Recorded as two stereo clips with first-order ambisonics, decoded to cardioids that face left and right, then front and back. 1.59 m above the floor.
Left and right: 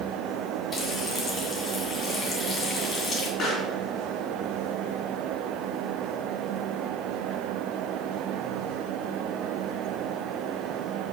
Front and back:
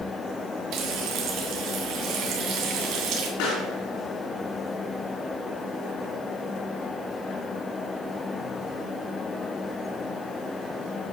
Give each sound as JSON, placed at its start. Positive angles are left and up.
{"t": 0.7, "sound": "frying", "azimuth_deg": 160, "distance_m": 2.0}
{"t": 3.4, "sound": "a pop", "azimuth_deg": 30, "distance_m": 4.5}